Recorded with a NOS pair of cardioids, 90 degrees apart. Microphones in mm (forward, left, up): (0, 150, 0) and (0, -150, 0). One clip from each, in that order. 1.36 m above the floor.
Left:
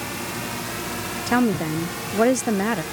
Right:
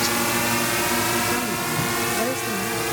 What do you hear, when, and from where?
0.0 s a drone: 65° right; by 2.9 s 55° right
1.3 s a woman speaking: 45° left